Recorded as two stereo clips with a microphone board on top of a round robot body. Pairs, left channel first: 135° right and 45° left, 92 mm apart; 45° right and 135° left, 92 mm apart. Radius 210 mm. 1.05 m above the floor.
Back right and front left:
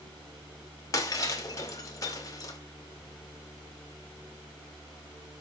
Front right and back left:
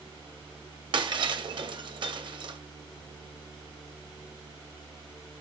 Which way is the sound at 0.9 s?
170° left.